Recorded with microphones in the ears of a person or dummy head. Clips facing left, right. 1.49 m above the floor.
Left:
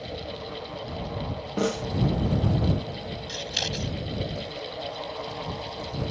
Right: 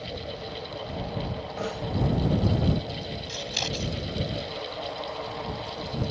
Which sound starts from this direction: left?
A snare drum, at 1.6 s.